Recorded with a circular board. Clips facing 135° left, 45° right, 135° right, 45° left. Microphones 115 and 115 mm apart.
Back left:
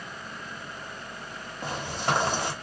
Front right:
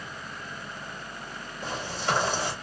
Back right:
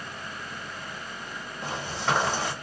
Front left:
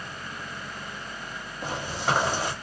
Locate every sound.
1.6 s footsteps: 120° left, 1.8 m